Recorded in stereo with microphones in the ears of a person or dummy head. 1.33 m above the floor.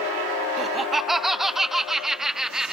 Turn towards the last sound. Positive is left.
turn(degrees=-5)  # may be behind; listen again after turning